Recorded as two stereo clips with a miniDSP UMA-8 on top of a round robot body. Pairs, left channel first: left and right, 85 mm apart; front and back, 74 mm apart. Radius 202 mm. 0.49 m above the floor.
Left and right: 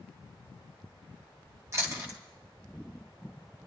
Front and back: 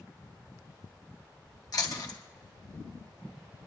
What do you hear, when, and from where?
1.7 s chewing: 35° right, 1.9 m